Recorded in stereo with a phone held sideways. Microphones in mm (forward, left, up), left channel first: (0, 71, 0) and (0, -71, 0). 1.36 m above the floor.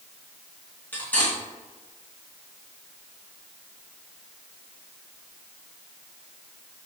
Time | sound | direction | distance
0.9 | cutlery clinking | 10° left (ahead or behind) | 1.3 m